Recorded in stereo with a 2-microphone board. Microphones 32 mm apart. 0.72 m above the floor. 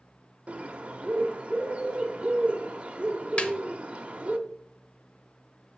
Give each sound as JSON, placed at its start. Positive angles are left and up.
{"t": 0.5, "sound": "a bird", "side_deg": -40, "distance_m": 1.0}
{"t": 3.4, "sound": "a snare drum", "side_deg": 35, "distance_m": 0.8}